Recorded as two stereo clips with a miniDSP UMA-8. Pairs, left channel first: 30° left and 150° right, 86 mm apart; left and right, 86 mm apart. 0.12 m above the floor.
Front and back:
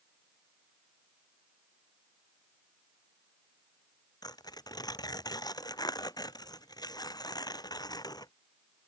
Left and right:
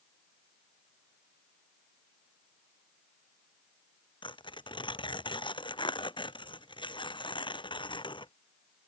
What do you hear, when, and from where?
4.2 s tearing paper: 70° left